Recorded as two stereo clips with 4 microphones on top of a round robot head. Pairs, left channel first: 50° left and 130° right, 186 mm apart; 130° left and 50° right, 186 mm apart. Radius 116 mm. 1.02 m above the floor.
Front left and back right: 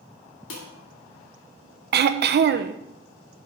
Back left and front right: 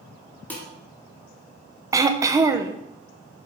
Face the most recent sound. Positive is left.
turn(degrees=-120)